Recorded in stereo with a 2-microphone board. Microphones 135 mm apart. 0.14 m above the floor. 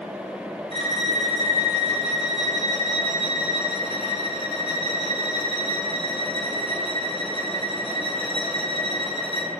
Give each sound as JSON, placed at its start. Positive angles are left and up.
{"t": 0.7, "sound": "a violin", "side_deg": -45, "distance_m": 2.0}